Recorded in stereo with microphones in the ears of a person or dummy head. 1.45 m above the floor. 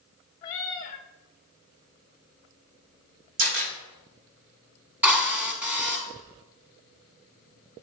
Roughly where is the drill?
Centre.